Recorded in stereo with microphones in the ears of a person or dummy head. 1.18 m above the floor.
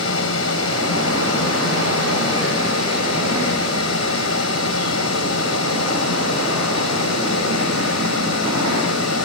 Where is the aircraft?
70° left (ahead or behind); by 9.3 s 80° left.